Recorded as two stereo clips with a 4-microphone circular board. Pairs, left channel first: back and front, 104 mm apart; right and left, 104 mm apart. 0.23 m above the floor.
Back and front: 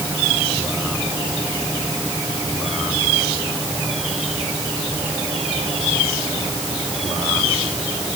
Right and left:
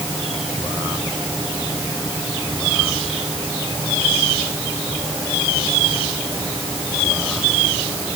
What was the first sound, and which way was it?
Only background noise.